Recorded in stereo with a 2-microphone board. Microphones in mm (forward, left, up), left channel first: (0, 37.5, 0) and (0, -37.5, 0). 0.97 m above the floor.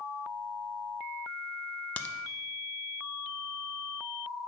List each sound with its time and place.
2.0 s a crack: 20° left (ahead or behind), 0.6 m